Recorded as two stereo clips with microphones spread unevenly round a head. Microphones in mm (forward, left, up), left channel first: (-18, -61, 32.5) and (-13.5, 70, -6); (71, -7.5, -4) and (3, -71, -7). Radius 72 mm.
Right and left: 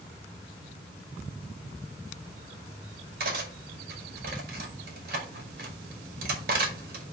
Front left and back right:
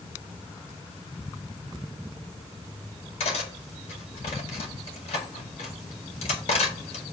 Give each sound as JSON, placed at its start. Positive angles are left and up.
{"t": 3.2, "sound": "cutlery clinking", "azimuth_deg": 55, "distance_m": 2.0}